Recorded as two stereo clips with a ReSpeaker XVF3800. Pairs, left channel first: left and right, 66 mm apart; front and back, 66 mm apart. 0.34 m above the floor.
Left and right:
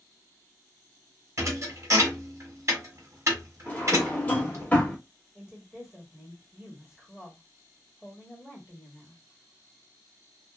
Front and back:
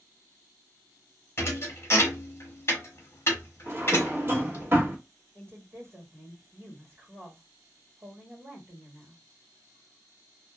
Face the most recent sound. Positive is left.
turn(degrees=-160)